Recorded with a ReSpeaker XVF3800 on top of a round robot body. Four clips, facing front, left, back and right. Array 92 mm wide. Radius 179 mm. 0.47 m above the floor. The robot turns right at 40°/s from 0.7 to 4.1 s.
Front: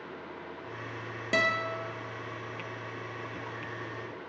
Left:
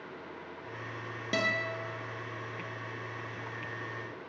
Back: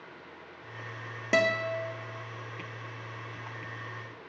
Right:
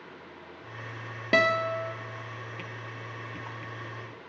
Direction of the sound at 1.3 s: 120° right.